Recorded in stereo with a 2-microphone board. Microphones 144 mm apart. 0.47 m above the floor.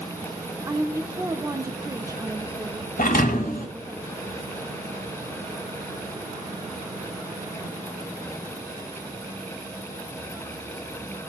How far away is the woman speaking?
About 0.8 m.